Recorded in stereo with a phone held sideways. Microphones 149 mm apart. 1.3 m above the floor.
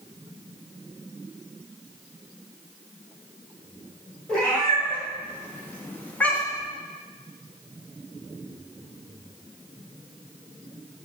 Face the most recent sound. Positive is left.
turn(degrees=5)  # may be behind; listen again after turning